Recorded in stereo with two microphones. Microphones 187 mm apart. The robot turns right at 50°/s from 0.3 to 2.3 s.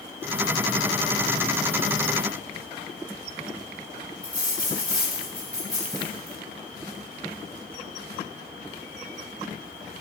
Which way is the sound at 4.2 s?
5° left (ahead or behind).